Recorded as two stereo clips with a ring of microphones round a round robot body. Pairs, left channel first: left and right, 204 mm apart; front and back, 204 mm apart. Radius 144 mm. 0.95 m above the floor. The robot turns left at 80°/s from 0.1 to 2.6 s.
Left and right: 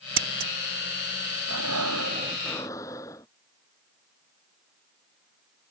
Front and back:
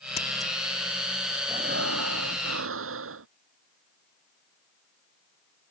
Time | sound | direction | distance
0.2 | scissors | 70° right | ?
1.5 | breathing | 100° right | ?